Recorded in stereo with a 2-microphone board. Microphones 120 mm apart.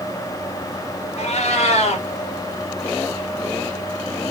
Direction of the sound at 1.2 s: 70° left (ahead or behind).